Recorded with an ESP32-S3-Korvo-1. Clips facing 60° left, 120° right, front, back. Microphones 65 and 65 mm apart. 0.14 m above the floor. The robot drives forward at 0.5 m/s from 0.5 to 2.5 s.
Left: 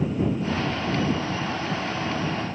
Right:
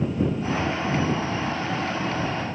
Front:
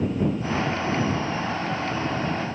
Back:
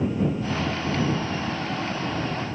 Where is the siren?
No siren in this recording.